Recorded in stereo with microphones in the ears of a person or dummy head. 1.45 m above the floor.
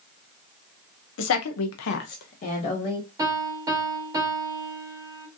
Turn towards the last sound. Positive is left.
turn(degrees=-15)  # may be behind; listen again after turning